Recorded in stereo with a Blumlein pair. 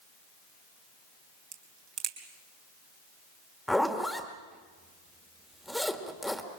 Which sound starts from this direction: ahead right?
A crack, at 1.5 s.